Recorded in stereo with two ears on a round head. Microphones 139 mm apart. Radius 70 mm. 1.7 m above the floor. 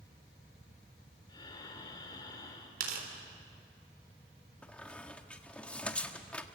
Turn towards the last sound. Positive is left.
turn(degrees=10)  # may be behind; listen again after turning